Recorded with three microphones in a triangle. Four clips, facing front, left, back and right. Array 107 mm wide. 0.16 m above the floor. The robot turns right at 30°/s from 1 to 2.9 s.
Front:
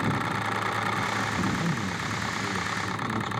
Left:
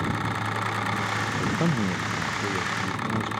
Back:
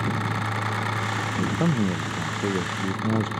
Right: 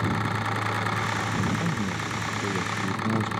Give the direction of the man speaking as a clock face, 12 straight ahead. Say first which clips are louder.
Left 2 dB, back 4 dB; 7 o'clock.